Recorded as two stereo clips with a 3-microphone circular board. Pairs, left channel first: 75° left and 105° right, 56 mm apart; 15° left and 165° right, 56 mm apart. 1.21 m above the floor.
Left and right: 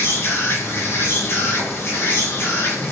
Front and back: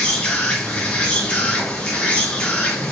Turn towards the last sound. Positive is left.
turn(degrees=75)